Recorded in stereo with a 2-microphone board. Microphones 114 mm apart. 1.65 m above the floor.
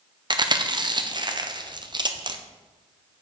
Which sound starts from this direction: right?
Chewing, at 0.3 s.